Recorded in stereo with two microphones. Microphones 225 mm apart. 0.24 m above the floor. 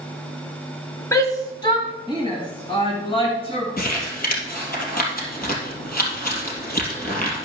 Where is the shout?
15° left (ahead or behind), 1.2 m; by 3.7 s 25° left (ahead or behind), 3 m.